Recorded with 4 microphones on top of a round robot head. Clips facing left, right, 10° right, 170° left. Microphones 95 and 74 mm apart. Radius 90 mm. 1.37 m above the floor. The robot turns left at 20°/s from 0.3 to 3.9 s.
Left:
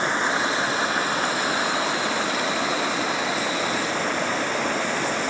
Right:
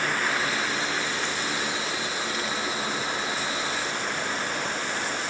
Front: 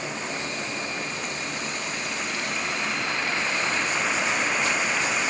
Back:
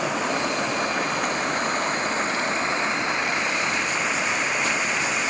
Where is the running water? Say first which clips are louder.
Left 4 dB, back 7 dB; 155° left; by 5.3 s 85° left.